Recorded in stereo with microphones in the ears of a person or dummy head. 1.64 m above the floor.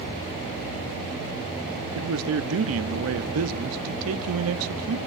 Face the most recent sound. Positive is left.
turn(degrees=-80)